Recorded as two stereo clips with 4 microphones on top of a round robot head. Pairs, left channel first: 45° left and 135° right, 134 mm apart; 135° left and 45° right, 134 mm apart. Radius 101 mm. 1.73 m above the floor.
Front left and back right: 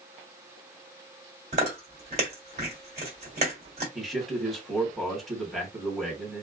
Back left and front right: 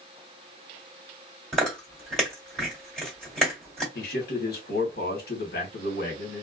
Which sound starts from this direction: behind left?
A man speaking, at 4.0 s.